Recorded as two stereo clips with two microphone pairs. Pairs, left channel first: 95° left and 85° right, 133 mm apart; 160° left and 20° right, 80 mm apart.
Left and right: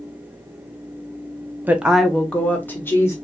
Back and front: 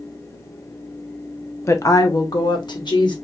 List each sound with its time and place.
1.7 s a woman speaking: 165° right, 0.5 m; by 3.1 s 160° left, 1.2 m